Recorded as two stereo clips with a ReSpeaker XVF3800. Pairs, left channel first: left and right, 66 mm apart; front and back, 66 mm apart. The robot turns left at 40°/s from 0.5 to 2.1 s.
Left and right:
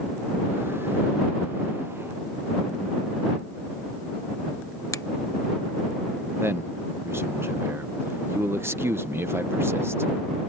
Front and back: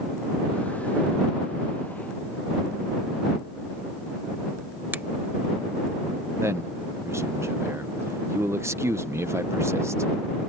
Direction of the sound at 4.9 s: 120° left.